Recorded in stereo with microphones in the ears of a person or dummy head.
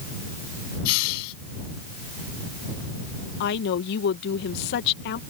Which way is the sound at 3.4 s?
60° left (ahead or behind).